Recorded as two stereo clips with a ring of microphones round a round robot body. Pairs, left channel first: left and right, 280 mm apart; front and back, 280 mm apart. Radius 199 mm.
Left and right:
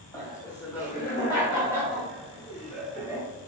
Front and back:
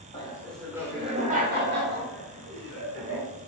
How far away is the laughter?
About 0.8 m.